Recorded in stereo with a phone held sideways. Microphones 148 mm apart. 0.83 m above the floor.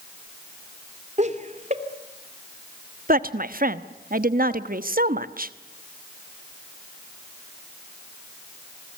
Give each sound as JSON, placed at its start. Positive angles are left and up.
{"t": 1.2, "sound": "laughter", "side_deg": -50, "distance_m": 2.5}
{"t": 3.1, "sound": "a woman speaking", "side_deg": -65, "distance_m": 1.1}